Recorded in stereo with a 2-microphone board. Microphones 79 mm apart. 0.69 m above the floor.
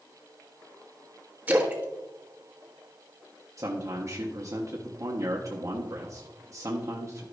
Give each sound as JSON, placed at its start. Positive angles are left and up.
{"t": 1.5, "sound": "a splash", "side_deg": -20, "distance_m": 1.1}
{"t": 3.6, "sound": "a man speaking", "side_deg": -45, "distance_m": 0.9}